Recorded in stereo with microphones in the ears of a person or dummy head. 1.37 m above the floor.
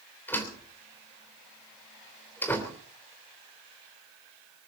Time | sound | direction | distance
0.3 | a door slam | 10° left (ahead or behind) | 3 m